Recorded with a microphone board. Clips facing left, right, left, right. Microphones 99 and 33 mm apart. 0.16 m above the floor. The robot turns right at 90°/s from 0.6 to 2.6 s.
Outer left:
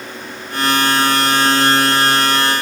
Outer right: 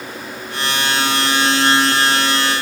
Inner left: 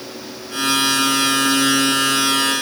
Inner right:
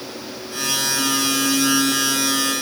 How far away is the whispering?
No whispering in this recording.